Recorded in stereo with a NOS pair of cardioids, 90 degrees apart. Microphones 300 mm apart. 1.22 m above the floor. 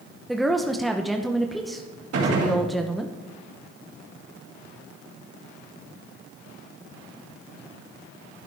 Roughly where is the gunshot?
Ahead right.